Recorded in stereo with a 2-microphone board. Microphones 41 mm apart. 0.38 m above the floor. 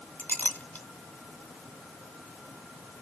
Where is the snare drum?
I don't hear a snare drum.